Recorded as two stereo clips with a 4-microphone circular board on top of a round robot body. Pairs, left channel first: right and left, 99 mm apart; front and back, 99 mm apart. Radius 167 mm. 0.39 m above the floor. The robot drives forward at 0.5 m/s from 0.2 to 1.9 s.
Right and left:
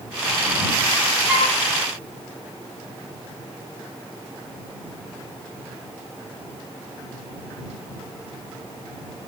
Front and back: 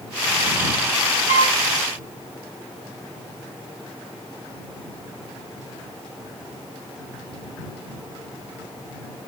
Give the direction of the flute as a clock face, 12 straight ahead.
6 o'clock.